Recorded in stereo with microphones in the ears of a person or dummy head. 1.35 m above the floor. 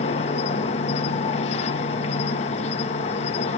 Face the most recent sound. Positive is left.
turn(degrees=35)  # may be behind; listen again after turning